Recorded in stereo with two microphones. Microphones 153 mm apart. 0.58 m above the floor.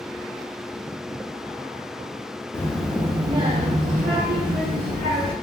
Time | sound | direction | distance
2.5 | a child speaking | 15° left (ahead or behind) | 0.6 m